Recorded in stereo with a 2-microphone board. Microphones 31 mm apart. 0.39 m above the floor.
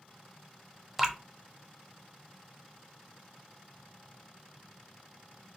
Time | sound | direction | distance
1.0 | dripping | 10° right (ahead or behind) | 0.7 m